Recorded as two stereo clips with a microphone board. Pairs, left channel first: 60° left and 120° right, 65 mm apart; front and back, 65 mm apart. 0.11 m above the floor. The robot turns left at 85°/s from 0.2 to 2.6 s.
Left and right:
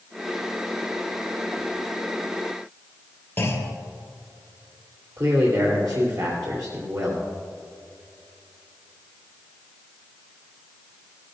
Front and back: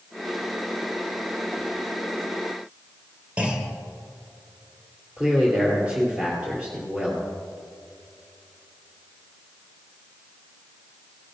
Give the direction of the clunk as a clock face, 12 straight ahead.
8 o'clock.